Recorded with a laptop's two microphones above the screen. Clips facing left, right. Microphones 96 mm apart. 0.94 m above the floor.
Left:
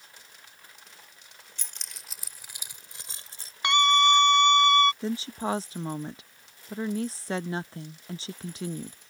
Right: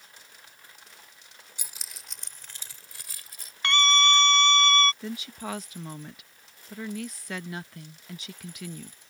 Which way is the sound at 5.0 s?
30° left (ahead or behind).